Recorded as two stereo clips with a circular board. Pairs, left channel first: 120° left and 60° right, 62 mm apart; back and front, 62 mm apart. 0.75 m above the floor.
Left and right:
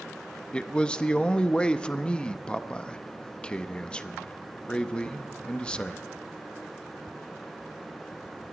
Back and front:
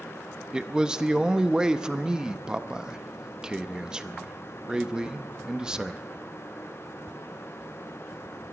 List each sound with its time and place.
0.5 s a man speaking: 65° left, 0.6 m